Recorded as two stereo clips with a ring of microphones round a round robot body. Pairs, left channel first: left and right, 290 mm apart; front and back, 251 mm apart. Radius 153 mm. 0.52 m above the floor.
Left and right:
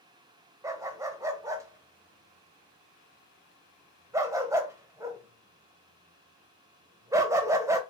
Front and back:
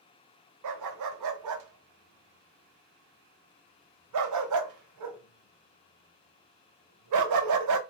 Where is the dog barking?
170° right, 0.8 m.